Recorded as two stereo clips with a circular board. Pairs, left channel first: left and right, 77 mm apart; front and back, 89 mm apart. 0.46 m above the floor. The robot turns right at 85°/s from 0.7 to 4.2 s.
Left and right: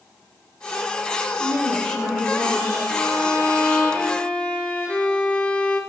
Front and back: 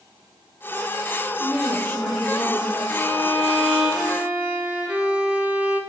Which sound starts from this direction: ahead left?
A violin, at 2.9 s.